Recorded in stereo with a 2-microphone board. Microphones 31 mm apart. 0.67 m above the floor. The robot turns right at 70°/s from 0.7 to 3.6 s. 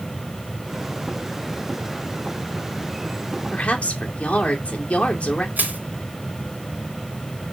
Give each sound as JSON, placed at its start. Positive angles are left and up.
{"t": 3.5, "sound": "a woman speaking", "side_deg": 40, "distance_m": 2.0}
{"t": 5.6, "sound": "crushing", "side_deg": -65, "distance_m": 2.0}